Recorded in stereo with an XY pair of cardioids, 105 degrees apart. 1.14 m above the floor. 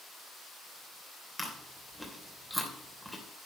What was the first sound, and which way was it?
Chewing, straight ahead.